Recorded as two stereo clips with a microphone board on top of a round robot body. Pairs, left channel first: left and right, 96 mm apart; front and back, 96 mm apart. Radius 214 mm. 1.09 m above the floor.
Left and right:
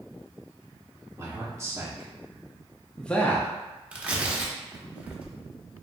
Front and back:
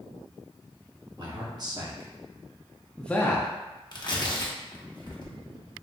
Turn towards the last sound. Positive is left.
turn(degrees=-15)